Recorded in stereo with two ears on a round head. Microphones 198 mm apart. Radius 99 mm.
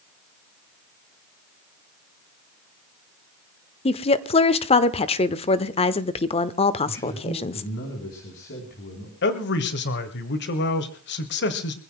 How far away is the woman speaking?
About 0.9 m.